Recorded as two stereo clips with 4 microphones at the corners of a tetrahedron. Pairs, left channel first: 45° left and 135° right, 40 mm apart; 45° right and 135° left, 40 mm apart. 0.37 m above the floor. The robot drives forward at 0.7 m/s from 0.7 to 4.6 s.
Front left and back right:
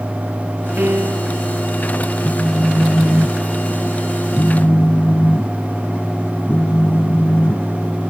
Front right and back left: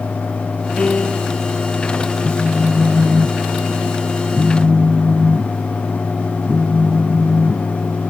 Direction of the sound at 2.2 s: 55° left.